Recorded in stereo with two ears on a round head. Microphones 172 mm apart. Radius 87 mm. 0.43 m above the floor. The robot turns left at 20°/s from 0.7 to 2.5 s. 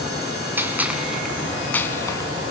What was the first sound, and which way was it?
A gunshot, 10° right (ahead or behind).